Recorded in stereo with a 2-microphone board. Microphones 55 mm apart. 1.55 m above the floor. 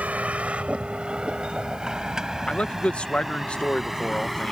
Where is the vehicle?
30° right (ahead or behind); by 4.5 s 5° right (ahead or behind).